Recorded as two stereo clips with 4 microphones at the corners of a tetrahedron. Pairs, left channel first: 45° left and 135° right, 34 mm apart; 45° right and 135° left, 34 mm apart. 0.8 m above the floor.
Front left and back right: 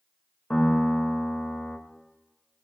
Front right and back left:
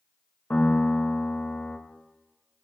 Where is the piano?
10° right, 1.8 m.